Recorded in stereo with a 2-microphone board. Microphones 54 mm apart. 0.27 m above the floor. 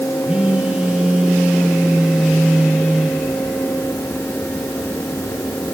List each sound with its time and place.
0.2 s a phone buzzing: 20° right (ahead or behind), 7 m